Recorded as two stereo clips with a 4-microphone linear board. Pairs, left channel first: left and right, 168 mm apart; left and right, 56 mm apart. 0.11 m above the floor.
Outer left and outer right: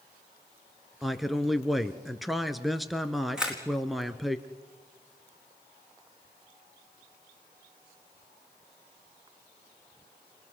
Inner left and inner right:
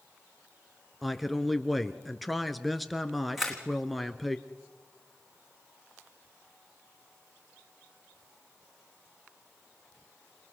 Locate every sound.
1.0 s a man speaking: centre (ahead or behind), 1.2 m
3.4 s a camera shutter: 5° right (ahead or behind), 3.5 m